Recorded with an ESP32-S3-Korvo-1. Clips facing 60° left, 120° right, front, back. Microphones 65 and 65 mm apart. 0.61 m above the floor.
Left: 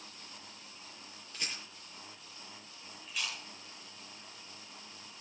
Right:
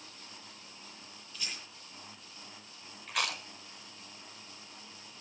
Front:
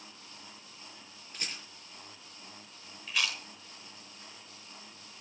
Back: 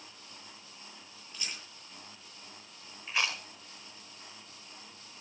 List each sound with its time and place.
1.3 s a rattle: 40° left, 8 m
3.1 s chewing: 120° right, 1.6 m